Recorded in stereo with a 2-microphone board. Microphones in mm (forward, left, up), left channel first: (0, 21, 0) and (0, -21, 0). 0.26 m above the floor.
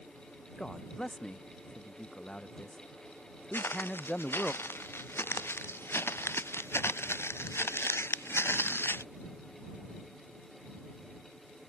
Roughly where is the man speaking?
Centre.